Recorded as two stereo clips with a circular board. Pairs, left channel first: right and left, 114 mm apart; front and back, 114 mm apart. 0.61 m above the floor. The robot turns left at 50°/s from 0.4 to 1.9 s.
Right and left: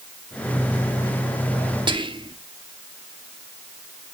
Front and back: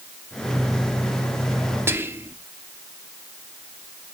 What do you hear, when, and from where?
1.9 s whispering: 115° left, 0.8 m